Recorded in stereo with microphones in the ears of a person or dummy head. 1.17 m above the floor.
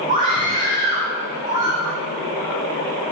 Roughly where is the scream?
Right.